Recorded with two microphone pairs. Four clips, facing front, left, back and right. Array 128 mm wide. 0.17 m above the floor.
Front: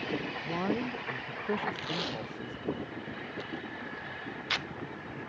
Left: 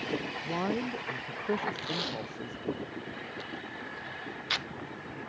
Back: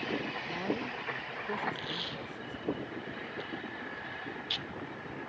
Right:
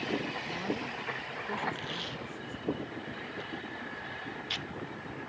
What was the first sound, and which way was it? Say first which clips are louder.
A man speaking: left 4 dB, front 3 dB; 70° left.